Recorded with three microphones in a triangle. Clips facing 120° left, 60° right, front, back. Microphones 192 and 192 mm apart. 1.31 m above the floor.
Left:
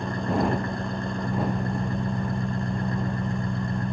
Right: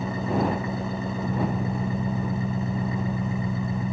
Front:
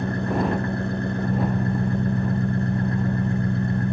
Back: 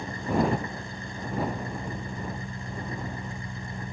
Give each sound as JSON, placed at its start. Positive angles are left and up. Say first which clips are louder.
{"t": 0.0, "sound": "an engine running", "louder": "even, front 3 dB", "azimuth_deg": 25}